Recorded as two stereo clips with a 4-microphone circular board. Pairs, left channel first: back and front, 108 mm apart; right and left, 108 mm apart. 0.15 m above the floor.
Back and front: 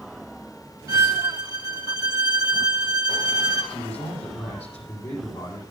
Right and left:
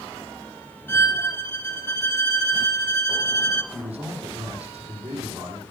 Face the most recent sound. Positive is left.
turn(degrees=170)